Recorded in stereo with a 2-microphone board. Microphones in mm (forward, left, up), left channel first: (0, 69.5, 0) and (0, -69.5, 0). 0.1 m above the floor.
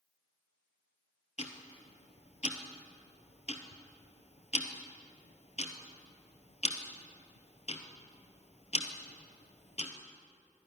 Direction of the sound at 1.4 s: 55° left (ahead or behind).